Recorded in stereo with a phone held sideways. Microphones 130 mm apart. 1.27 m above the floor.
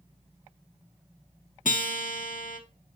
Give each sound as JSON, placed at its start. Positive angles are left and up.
{"t": 1.6, "sound": "a guitar", "side_deg": 90, "distance_m": 0.8}